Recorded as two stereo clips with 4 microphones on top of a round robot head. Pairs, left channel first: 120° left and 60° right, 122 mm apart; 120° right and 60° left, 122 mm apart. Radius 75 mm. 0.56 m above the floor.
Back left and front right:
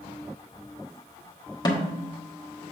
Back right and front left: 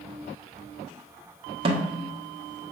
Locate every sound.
1.6 s a snare drum: 75° left, 1.6 m